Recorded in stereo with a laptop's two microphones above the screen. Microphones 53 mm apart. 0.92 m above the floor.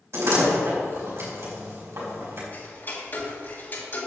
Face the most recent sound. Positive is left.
turn(degrees=40)  # may be behind; listen again after turning